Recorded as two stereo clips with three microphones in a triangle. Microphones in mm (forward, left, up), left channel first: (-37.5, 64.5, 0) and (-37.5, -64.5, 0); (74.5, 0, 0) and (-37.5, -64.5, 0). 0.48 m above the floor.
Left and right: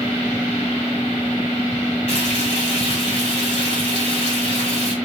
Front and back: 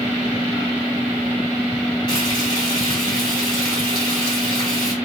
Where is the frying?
75° left, 2 m.